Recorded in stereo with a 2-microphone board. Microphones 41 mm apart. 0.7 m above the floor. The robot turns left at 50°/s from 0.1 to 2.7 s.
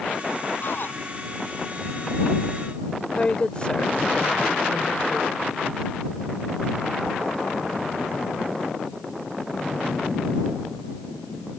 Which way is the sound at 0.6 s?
50° left (ahead or behind).